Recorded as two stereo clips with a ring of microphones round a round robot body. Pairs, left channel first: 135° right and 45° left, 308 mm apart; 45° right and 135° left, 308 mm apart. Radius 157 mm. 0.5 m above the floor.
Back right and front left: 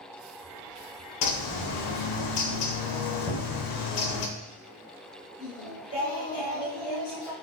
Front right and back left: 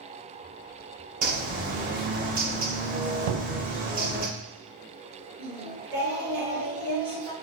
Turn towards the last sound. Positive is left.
turn(degrees=-175)